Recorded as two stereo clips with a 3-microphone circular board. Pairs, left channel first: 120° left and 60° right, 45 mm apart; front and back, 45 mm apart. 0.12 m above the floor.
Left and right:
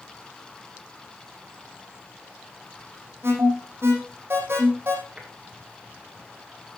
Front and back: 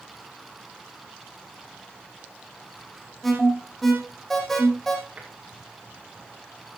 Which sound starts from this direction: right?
An alarm, at 3.2 s.